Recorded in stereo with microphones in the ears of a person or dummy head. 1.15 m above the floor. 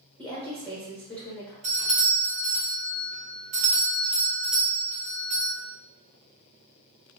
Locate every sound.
0.2 s a woman speaking: 10° left (ahead or behind), 1.3 m
1.6 s a doorbell: 35° right (ahead or behind), 0.7 m